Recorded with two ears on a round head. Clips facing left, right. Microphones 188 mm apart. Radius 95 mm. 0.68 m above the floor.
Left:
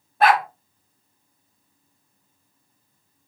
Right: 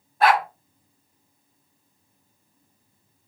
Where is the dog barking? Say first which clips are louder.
Left 1 dB; 50° left (ahead or behind), 2 m.